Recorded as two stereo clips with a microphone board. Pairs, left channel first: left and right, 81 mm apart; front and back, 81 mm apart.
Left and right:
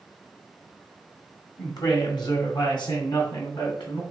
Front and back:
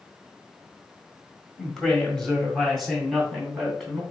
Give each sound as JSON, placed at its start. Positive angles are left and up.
{"t": 1.6, "sound": "a woman speaking", "azimuth_deg": 80, "distance_m": 1.5}